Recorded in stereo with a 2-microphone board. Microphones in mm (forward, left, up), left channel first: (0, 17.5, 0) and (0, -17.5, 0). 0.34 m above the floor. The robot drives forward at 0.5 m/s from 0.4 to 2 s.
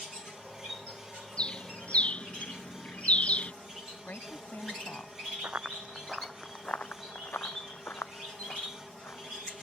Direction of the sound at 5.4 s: 50° right (ahead or behind).